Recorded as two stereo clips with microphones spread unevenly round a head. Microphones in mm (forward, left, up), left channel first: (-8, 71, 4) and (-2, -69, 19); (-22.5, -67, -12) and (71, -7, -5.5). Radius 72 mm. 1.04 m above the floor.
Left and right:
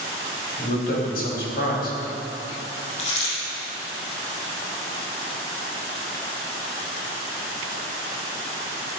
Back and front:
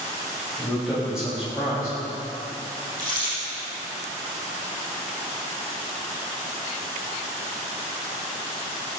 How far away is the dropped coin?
About 4.5 m.